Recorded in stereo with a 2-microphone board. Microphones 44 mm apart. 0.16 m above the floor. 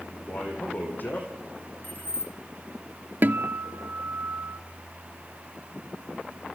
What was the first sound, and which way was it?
A man speaking, 45° left (ahead or behind).